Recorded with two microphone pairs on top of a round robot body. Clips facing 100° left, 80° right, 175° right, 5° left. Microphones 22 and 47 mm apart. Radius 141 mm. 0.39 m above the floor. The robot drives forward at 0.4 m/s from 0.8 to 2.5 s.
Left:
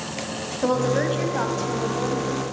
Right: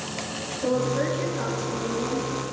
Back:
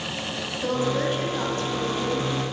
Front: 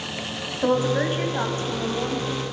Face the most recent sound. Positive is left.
turn(degrees=70)